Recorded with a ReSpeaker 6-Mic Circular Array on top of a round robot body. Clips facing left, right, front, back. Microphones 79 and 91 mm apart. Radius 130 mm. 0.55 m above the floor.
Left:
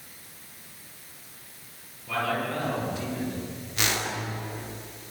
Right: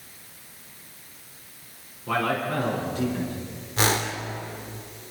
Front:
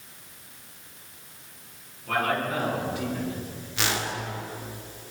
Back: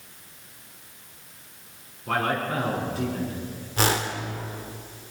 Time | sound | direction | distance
2.1 | a man speaking | 125° right | 8.5 m
3.8 | a whoosh | 135° right | 2 m